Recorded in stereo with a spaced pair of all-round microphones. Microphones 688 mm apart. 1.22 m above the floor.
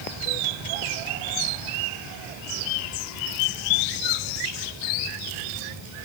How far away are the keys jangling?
No keys jangling in this recording.